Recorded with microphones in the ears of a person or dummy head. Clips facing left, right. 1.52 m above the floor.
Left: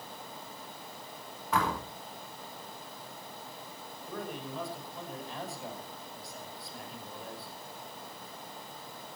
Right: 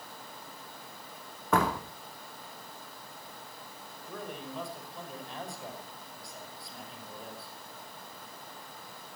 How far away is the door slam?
About 3 m.